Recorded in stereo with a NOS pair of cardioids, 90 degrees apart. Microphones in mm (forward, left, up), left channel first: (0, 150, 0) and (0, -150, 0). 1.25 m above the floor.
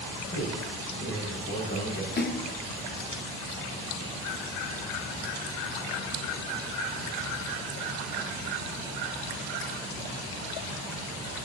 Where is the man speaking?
40° left, 6 m.